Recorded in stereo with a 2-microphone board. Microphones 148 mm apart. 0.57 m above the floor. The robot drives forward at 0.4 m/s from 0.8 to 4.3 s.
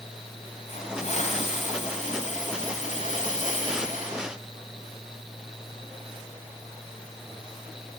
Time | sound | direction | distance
0.7 | a hiss | 55° left (ahead or behind) | 4 m